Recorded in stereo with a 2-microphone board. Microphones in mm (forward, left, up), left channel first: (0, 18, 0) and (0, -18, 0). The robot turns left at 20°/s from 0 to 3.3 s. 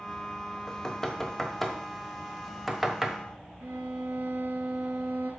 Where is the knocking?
20° left (ahead or behind), 1.1 m; by 3.2 s 10° right (ahead or behind), 1.1 m.